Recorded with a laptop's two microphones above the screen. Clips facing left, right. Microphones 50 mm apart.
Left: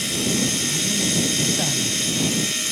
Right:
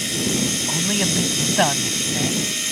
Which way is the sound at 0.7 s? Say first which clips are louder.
Right 2 dB; 85° right.